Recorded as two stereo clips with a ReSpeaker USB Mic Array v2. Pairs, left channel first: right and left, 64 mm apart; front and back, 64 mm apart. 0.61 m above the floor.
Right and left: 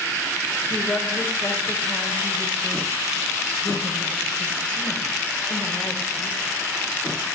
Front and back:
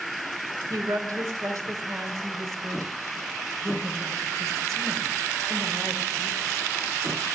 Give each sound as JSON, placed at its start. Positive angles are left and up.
{"t": 0.7, "sound": "a woman speaking", "azimuth_deg": -160, "distance_m": 3.0}